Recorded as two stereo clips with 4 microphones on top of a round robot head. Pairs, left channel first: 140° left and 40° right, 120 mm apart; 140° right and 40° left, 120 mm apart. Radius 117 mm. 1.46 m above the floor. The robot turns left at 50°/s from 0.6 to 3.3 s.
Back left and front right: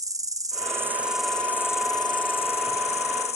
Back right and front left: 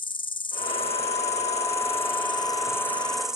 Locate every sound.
0.0 s an insect: 100° right, 0.7 m; by 3.4 s 125° left, 0.7 m